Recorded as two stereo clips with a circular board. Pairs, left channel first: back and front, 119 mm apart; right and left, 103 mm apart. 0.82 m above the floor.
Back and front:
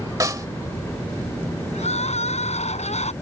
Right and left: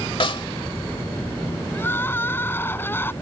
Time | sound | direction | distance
0.2 | a snare drum | 60° right | ?
1.7 | crying | 160° right | ?